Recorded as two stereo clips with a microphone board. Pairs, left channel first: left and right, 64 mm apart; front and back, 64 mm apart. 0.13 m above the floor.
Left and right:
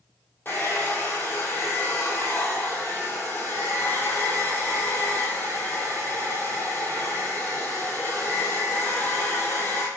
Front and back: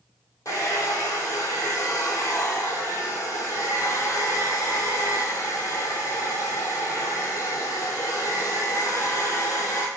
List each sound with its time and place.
0.5 s a hair dryer: 35° left, 1.1 m